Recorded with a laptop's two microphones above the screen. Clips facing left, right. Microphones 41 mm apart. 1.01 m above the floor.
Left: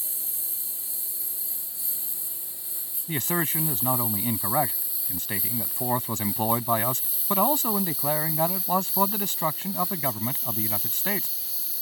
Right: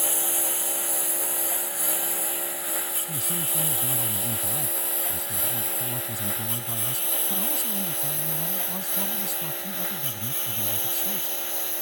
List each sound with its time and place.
0.0 s a lawn mower: 70° right (ahead or behind); by 11.8 s 60° right (ahead or behind)
3.1 s a man speaking: 65° left (ahead or behind)